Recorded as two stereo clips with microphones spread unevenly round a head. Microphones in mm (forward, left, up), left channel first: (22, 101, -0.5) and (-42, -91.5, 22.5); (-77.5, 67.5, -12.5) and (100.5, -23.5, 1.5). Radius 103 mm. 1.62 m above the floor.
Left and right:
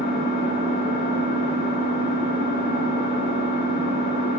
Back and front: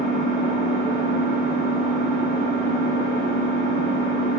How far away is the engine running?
About 1.2 m.